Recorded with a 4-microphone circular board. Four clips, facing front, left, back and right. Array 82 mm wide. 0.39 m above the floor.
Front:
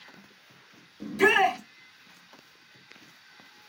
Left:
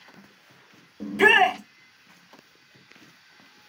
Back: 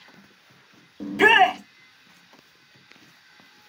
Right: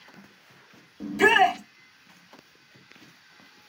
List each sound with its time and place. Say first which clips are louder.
1.0 s a shout: left 1 dB, back 5 dB; 160° left, 1.2 m